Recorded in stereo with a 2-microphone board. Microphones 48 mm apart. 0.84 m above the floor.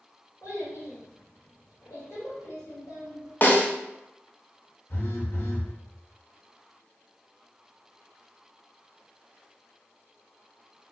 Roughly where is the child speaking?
Left.